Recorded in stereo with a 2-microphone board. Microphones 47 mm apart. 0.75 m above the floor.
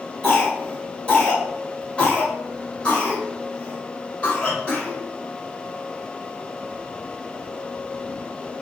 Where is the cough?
25° left (ahead or behind), 1.2 m.